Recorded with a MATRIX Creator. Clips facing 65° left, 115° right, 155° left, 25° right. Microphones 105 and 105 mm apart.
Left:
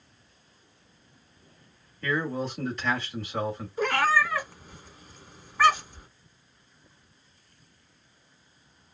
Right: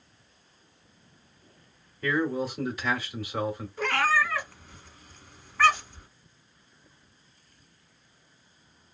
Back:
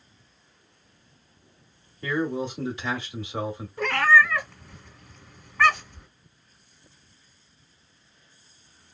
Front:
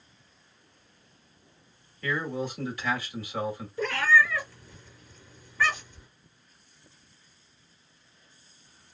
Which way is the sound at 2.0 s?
175° left.